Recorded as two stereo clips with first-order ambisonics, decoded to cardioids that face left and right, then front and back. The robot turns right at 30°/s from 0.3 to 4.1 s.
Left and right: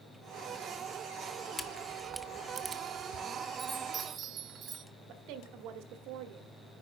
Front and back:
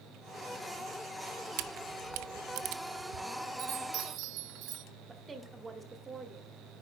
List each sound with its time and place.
1.6 s a camera shutter: 165° left, 0.6 m; by 3.3 s 145° right, 0.6 m
3.6 s a chime: 160° right, 0.8 m; by 4.8 s 145° right, 0.8 m
5.1 s a woman speaking: 105° right, 1.2 m